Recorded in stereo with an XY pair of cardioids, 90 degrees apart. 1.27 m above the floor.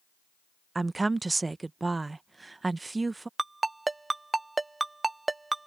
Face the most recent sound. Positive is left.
turn(degrees=-20)